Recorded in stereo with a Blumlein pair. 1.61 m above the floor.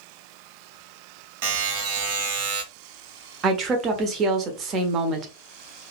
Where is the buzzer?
50° right, 0.9 m.